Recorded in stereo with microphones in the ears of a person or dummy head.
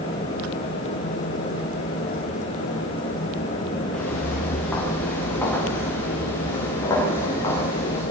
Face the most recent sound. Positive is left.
turn(degrees=15)  # may be behind; listen again after turning